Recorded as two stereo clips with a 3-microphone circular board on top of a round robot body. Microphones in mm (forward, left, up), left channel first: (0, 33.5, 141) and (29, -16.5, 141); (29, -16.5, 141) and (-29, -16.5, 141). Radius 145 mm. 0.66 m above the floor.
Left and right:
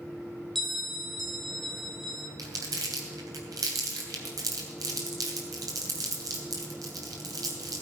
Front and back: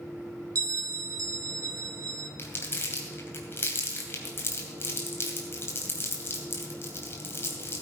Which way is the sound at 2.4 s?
50° right.